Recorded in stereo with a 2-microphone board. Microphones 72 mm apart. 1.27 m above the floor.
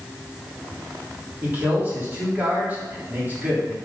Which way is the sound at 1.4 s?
25° right (ahead or behind).